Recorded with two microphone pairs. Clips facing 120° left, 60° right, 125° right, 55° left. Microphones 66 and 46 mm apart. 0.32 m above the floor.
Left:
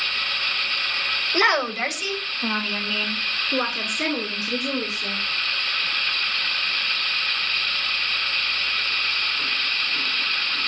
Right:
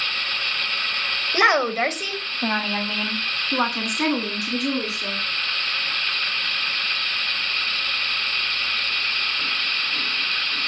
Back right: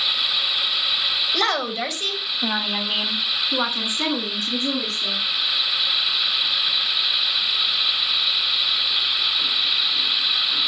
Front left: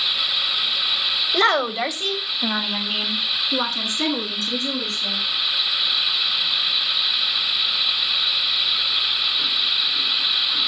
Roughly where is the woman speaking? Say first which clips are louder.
Right 3 dB, front left 6 dB; ahead.